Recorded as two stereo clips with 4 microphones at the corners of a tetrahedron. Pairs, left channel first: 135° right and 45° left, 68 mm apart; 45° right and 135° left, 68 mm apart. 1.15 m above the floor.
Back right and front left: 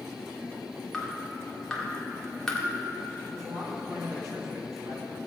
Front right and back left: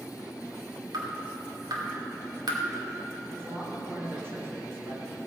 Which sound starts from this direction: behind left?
Dripping, at 0.9 s.